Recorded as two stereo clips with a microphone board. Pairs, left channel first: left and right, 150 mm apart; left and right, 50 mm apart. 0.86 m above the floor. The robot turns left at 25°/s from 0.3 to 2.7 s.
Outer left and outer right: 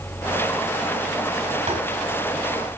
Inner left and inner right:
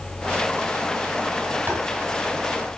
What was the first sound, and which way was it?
Tapping, 45° right (ahead or behind).